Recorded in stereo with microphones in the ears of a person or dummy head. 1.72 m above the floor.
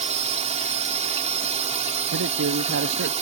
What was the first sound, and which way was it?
A drone, 35° right (ahead or behind).